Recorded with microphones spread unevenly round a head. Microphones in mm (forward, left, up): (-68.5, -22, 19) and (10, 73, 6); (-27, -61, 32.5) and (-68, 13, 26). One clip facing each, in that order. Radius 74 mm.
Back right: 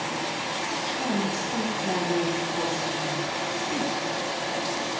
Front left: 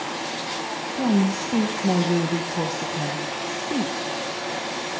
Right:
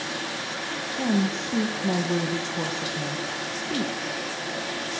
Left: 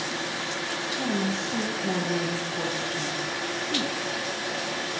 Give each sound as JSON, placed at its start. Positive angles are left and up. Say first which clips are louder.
{"t": 0.9, "sound": "a woman speaking", "louder": "front left 8 dB, right 4 dB", "azimuth_deg": 5, "distance_m": 1.3}